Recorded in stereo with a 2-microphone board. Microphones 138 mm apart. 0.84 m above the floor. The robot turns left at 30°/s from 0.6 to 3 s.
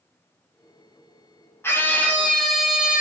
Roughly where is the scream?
Ahead left.